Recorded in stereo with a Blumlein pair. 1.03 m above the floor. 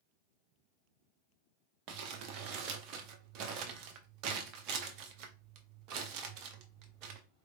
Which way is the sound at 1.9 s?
40° right.